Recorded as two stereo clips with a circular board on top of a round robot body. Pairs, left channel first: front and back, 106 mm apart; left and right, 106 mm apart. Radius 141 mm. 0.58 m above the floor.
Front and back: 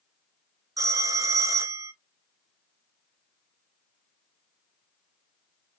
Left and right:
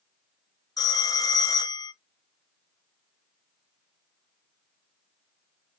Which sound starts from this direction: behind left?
A phone ringing, at 0.8 s.